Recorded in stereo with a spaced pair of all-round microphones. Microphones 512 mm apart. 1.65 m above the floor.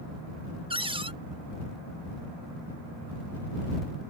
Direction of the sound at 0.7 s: 10° right (ahead or behind).